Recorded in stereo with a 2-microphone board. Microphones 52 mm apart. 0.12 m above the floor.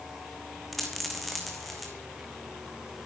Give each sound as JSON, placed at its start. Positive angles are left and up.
{"t": 0.7, "sound": "a dropped coin", "side_deg": 5, "distance_m": 2.0}